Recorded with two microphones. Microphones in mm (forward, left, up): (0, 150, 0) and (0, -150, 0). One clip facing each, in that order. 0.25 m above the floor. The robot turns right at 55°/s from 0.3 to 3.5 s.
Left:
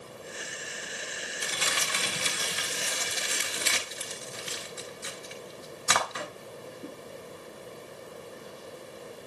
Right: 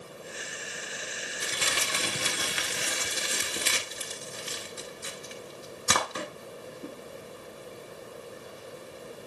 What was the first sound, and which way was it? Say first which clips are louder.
Crumpling: right 2 dB; 25° right (ahead or behind).